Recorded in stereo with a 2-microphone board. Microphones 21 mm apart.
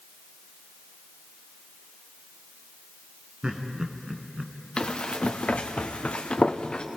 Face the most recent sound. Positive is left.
turn(degrees=45)  # may be behind; listen again after turning